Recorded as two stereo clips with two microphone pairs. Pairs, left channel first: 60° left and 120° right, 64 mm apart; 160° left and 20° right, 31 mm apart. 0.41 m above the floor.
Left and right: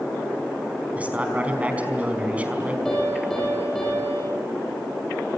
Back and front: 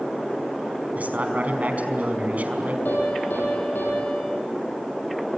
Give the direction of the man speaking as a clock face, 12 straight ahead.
2 o'clock.